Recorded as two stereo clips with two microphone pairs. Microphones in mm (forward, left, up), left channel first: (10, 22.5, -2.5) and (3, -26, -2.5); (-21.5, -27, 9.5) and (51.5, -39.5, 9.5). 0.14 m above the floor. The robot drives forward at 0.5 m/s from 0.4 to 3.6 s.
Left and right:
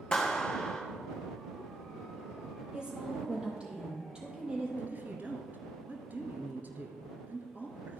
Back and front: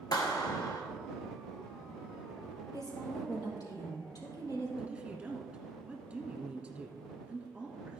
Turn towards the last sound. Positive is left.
turn(degrees=-80)